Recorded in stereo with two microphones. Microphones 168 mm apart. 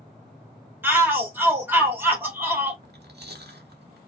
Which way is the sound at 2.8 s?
80° right.